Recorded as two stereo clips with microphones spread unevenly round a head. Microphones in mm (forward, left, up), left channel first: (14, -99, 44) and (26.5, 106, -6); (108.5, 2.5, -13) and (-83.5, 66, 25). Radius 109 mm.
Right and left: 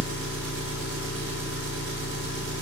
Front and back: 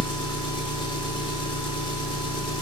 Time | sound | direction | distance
0.0 | an engine running | 50° left | 1.2 m